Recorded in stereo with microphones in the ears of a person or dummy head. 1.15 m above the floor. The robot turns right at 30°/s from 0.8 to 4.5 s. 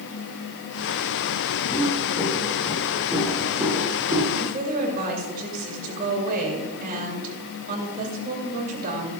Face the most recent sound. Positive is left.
turn(degrees=-55)  # may be behind; listen again after turning